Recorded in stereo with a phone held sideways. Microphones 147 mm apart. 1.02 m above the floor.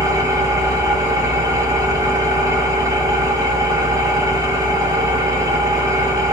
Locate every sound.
0.0 s an engine running: 25° right (ahead or behind), 1.6 m